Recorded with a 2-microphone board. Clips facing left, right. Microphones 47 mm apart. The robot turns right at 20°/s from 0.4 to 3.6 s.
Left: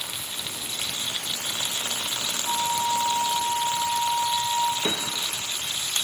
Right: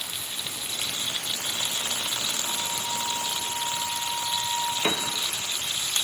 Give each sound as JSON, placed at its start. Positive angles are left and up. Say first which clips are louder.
{"t": 2.4, "sound": "a flute", "louder": "left 6 dB", "side_deg": 55, "distance_m": 3.0}
{"t": 4.8, "sound": "a piano", "louder": "right 1 dB", "side_deg": -65, "distance_m": 0.7}